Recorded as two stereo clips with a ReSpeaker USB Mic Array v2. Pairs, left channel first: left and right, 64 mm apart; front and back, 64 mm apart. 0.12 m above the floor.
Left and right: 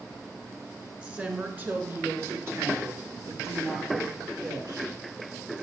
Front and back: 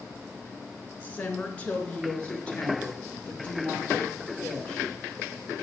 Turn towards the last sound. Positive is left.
turn(degrees=-75)